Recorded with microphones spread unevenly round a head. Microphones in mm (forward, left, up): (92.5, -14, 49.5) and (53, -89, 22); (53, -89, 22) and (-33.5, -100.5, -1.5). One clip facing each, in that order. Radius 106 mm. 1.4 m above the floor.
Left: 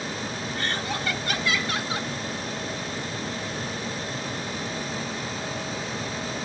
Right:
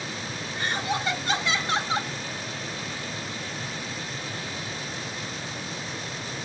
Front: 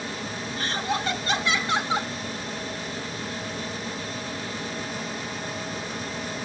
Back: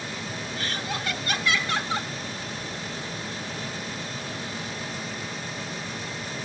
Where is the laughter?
40° right; by 2.1 s 60° right.